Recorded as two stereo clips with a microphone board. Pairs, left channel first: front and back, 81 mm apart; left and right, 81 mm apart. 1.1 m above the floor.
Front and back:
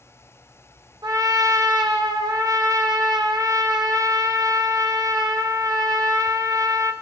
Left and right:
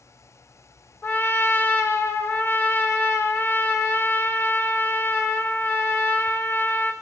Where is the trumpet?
150° left, 1.0 m.